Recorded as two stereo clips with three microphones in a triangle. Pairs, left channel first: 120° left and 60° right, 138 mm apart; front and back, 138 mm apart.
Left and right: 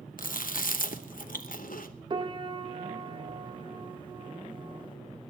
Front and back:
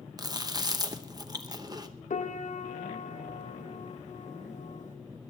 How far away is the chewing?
About 0.8 m.